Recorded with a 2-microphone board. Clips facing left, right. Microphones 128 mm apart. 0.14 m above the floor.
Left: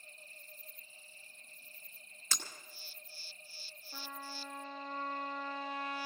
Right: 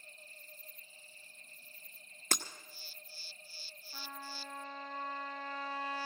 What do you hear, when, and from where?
2.3 s breaking glass: 60° right (ahead or behind), 1.1 m
3.9 s a trumpet: 70° left (ahead or behind), 3 m